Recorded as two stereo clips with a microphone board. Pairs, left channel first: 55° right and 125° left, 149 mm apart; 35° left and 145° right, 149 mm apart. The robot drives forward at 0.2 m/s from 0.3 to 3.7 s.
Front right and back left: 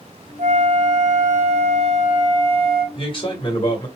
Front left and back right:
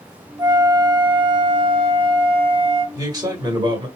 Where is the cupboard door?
I don't hear a cupboard door.